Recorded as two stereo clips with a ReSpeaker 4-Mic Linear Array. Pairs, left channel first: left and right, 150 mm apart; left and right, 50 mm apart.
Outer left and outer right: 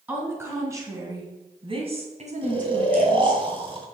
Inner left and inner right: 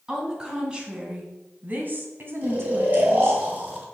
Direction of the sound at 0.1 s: 15° right (ahead or behind).